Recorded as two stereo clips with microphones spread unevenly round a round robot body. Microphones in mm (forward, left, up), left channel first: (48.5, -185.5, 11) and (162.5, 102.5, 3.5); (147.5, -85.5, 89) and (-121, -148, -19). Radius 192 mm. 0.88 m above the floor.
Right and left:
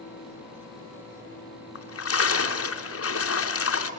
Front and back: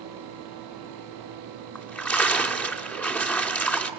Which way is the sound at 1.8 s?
65° right.